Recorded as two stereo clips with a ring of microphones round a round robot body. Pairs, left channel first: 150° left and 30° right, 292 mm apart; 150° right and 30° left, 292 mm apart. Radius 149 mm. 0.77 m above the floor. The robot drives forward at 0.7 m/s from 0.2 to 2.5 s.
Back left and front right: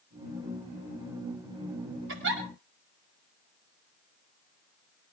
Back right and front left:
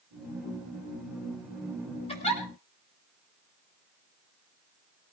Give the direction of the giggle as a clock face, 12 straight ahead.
3 o'clock.